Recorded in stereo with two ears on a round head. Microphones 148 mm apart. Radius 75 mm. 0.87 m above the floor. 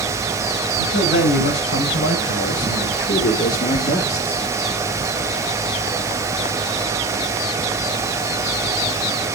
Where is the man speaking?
85° left, 4.5 m; by 4.4 s 5° left (ahead or behind), 1.6 m.